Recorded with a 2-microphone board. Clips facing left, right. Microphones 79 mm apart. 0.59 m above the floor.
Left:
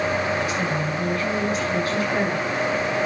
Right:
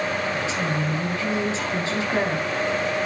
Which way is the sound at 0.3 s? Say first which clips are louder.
Left 1 dB; 25° right (ahead or behind).